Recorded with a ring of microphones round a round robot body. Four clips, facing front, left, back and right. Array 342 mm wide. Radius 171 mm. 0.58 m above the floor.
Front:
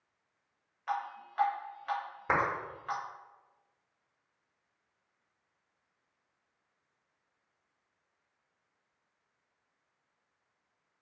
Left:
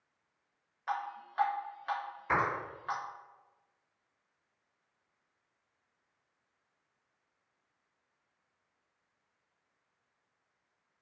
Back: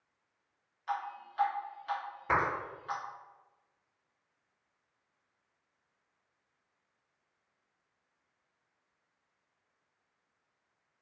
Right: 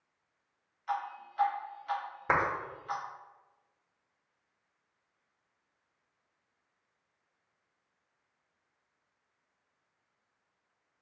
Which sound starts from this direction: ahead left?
Dripping, at 0.9 s.